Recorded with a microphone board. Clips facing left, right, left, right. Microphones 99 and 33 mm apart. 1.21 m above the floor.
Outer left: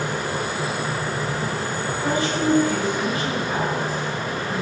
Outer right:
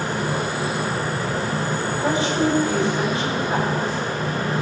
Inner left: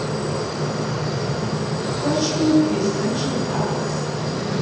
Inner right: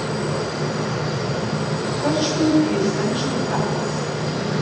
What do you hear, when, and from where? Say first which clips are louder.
2.0 s a woman speaking: outer right 1 dB, even; 25° right (ahead or behind), 5.5 m